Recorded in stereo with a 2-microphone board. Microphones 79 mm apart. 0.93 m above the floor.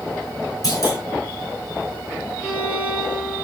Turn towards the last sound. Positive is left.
turn(degrees=30)  # may be behind; listen again after turning